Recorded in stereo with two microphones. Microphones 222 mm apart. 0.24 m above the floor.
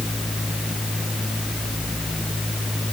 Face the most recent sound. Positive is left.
No sound to turn to.